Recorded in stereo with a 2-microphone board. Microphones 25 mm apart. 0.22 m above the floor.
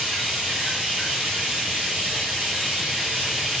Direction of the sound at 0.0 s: 30° right (ahead or behind).